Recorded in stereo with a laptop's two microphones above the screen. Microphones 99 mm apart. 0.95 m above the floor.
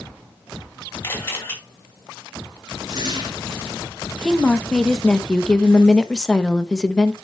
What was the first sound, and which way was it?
A camera shutter, 25° left (ahead or behind).